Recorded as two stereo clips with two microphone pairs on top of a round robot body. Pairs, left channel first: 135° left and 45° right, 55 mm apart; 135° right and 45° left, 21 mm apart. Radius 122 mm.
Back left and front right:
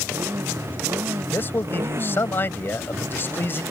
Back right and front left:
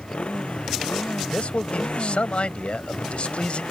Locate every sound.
0.0 s a motorcycle: 95° right
1.3 s a man speaking: 170° right